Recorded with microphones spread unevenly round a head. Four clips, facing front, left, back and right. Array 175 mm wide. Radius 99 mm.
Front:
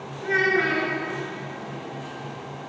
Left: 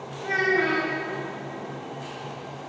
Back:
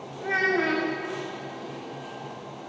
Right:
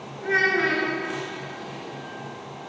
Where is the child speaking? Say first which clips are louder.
Right 1 dB, front 2 dB; 160° left, 2.5 m.